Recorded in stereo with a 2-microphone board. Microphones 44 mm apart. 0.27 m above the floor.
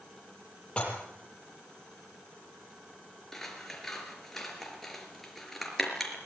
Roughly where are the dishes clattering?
Left.